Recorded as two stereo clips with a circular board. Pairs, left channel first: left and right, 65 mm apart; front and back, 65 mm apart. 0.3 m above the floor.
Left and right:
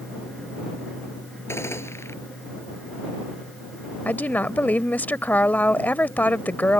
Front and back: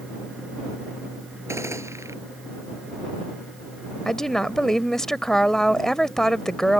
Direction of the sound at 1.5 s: 135° left.